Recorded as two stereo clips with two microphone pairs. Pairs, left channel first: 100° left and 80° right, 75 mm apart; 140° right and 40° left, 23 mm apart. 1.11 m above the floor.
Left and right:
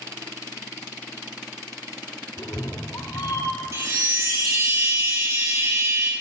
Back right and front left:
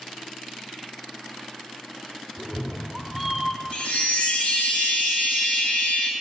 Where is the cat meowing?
115° left, 1.1 m; by 3.6 s 140° left, 1.6 m.